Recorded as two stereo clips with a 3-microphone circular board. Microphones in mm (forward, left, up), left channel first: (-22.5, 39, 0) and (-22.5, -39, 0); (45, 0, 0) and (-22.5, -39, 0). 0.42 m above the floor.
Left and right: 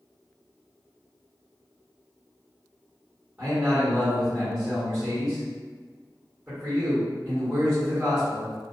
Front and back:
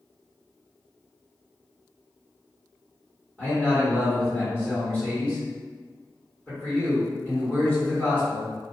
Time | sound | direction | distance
3.4 | a man speaking | 15° right | 1.3 m